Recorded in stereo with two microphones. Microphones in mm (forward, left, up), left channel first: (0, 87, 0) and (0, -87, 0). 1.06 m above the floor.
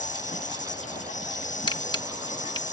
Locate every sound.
0.0 s an insect: 45° left (ahead or behind)
1.7 s a camera shutter: 25° left (ahead or behind)